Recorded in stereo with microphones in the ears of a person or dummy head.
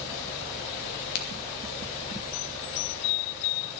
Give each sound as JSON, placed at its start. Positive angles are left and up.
{"t": 1.1, "sound": "a crack", "side_deg": 55, "distance_m": 2.5}